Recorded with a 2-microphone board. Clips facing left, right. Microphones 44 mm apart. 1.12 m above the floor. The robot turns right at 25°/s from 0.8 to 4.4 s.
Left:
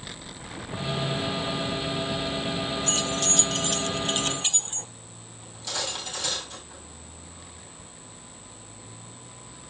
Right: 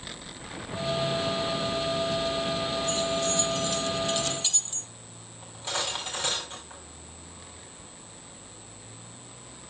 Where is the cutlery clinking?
30° right (ahead or behind), 4.5 m.